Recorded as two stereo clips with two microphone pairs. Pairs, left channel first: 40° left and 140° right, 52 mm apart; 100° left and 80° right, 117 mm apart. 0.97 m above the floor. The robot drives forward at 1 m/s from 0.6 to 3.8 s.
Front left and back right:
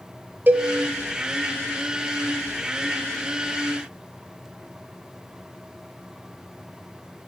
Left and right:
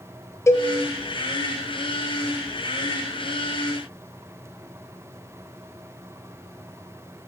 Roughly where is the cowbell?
Behind.